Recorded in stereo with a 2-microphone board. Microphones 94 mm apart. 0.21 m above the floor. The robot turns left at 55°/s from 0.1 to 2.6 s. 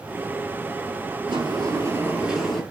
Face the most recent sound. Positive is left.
turn(degrees=170)